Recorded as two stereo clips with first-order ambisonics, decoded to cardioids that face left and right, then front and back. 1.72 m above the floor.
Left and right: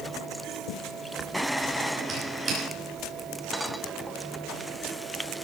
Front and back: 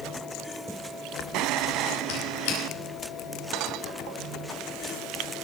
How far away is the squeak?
About 6.5 m.